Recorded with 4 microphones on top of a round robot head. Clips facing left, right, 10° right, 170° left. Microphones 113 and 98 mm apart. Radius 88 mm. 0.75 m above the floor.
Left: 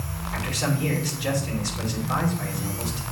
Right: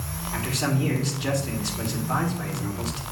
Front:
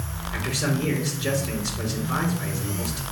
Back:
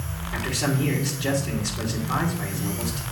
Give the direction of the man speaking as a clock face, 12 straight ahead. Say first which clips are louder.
Right 1 dB, back 1 dB; 5 o'clock.